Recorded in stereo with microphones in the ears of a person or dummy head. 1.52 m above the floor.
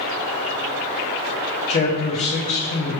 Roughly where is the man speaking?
Left.